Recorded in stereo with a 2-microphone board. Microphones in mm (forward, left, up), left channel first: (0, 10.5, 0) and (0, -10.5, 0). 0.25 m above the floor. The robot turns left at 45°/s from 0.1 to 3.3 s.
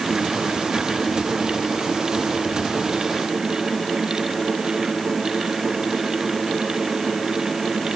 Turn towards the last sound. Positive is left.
No sound to turn to.